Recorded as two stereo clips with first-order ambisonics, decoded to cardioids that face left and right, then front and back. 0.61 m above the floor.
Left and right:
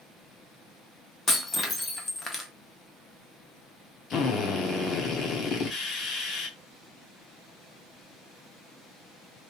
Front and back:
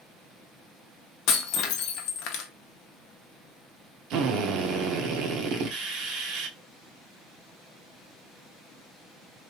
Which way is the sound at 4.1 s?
145° left.